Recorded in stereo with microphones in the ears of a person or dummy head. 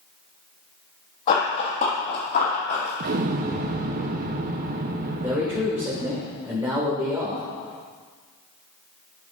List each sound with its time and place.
1.3 s running footsteps: 40° left (ahead or behind), 3 m; by 2.9 s 50° left (ahead or behind), 4 m
3.0 s an explosion: 50° right (ahead or behind), 0.8 m
5.2 s a man speaking: 10° right (ahead or behind), 1.6 m